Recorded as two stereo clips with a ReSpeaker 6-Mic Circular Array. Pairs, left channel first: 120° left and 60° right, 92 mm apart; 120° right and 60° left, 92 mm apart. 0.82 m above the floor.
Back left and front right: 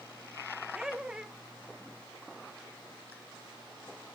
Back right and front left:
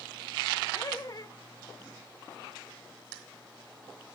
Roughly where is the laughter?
Behind right.